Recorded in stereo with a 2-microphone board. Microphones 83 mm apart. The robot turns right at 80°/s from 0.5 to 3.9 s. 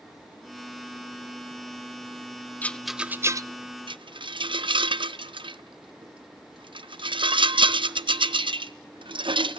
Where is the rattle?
20° left (ahead or behind), 0.5 m; by 9.6 s 85° right, 0.5 m.